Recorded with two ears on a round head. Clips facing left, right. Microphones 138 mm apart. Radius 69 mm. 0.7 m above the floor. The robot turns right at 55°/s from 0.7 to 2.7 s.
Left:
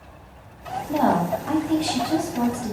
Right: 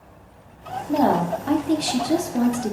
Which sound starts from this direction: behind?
A woman speaking, at 0.9 s.